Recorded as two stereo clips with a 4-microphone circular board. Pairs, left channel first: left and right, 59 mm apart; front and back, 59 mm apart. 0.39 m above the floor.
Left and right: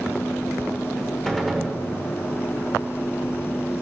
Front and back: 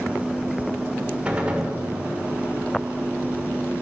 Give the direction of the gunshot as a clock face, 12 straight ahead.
6 o'clock.